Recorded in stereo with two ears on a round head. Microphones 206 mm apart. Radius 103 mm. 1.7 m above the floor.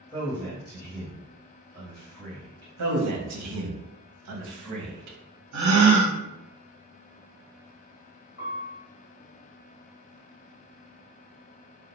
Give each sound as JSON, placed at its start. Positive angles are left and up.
{"t": 0.1, "sound": "a man speaking", "side_deg": 10, "distance_m": 1.2}
{"t": 2.8, "sound": "a man speaking", "side_deg": -80, "distance_m": 0.8}
{"t": 5.5, "sound": "a gasp", "side_deg": -75, "distance_m": 0.7}
{"t": 8.4, "sound": "a piano", "side_deg": 40, "distance_m": 1.3}